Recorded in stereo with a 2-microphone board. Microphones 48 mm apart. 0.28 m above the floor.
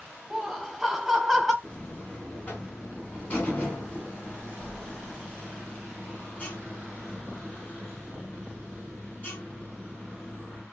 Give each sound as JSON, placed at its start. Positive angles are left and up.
{"t": 0.3, "sound": "laughter", "side_deg": -5, "distance_m": 1.2}
{"t": 1.6, "sound": "a buzzer", "side_deg": 35, "distance_m": 2.5}